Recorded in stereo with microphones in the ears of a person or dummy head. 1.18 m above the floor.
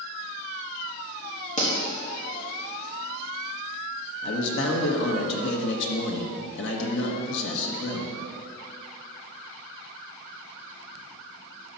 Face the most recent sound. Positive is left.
turn(degrees=65)  # may be behind; listen again after turning